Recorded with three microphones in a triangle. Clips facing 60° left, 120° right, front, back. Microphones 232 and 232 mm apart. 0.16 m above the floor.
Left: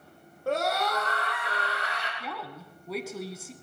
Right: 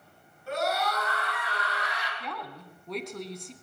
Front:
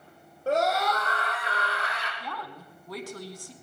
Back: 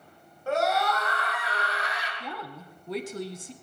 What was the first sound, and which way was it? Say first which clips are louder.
A scream: left 2 dB, front 1 dB; 50° left.